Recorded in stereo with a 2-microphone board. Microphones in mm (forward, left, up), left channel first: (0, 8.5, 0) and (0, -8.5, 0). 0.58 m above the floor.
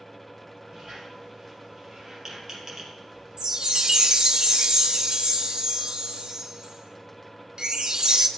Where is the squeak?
25° right (ahead or behind), 4 m.